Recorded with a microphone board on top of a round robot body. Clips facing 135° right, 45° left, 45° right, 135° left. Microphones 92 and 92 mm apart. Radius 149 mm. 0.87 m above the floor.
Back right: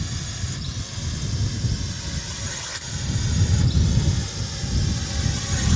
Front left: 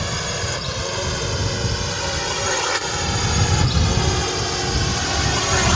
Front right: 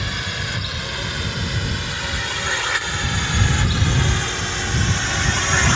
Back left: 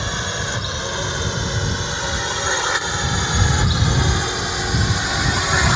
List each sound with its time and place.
0.0 s a drone: 70° left; by 5.8 s 55° left